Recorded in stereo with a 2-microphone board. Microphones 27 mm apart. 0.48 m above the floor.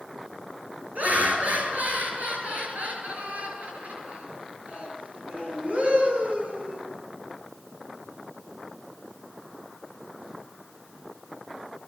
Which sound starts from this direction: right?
Laughter, at 0.9 s.